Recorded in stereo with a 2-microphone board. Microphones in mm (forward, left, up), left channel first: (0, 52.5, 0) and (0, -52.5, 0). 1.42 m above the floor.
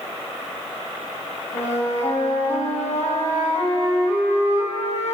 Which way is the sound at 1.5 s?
85° left.